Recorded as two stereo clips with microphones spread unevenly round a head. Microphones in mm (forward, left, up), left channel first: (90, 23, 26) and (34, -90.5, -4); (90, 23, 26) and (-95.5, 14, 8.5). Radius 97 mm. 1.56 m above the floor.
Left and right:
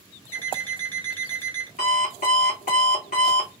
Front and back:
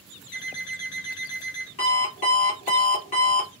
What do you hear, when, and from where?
0.3 s an alarm clock: straight ahead, 1.8 m
1.8 s an alarm clock: 55° left, 2 m